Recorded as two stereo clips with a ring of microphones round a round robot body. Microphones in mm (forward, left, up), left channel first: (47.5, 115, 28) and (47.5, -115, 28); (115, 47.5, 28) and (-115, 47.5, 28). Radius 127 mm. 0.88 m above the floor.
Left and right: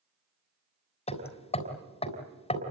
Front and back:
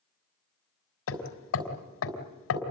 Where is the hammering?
25° left, 4 m.